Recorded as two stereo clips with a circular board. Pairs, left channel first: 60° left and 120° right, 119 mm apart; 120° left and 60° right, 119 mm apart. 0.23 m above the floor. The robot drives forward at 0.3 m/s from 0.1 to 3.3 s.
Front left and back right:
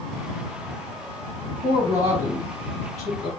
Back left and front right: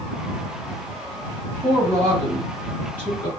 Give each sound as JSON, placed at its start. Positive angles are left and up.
{"t": 1.6, "sound": "a woman speaking", "azimuth_deg": -140, "distance_m": 1.0}